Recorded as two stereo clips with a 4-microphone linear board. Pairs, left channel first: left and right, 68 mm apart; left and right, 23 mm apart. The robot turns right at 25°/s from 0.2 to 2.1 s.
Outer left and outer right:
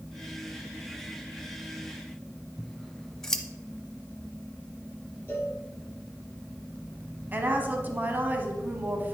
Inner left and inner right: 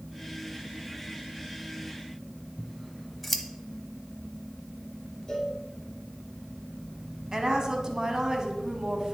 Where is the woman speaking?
25° right (ahead or behind), 1.2 m.